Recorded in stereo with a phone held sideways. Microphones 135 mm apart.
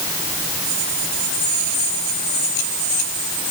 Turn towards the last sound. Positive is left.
No sound to turn to.